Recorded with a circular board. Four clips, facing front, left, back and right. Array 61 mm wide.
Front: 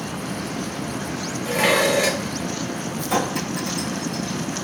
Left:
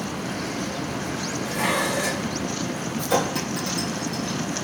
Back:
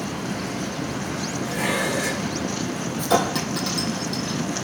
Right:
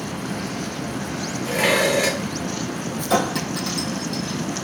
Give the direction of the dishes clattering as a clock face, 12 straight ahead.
2 o'clock.